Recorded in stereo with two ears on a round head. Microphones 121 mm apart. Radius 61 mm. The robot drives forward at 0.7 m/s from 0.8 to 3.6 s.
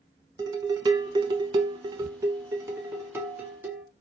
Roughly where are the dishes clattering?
Right.